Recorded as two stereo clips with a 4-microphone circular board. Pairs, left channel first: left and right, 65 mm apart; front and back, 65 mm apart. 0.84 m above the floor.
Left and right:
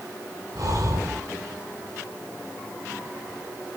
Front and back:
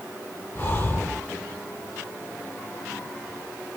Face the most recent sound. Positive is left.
turn(degrees=-60)